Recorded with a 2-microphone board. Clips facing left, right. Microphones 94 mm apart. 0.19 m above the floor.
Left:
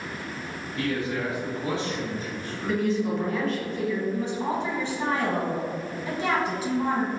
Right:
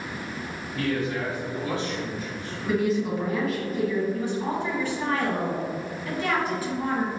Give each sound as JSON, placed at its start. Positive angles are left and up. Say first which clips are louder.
{"t": 0.8, "sound": "a man speaking", "louder": "right 1 dB", "side_deg": -10, "distance_m": 1.2}
{"t": 2.7, "sound": "a woman speaking", "louder": "right 1 dB", "side_deg": -5, "distance_m": 1.2}
{"t": 4.1, "sound": "a woman speaking", "louder": "even", "side_deg": 20, "distance_m": 1.4}